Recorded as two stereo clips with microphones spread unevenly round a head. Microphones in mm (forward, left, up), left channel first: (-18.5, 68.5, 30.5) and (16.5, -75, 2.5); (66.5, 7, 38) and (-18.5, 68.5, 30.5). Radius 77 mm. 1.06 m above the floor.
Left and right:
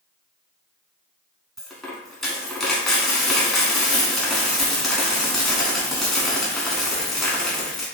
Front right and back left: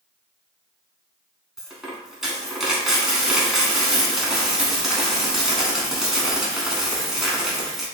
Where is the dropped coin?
55° left, 1.0 m.